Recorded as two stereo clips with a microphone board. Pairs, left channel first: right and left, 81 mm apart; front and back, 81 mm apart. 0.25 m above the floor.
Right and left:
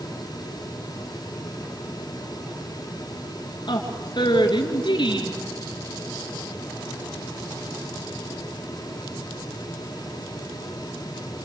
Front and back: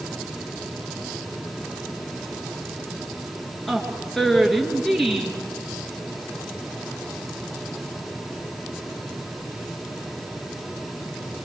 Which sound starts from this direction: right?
A woman speaking, at 3.7 s.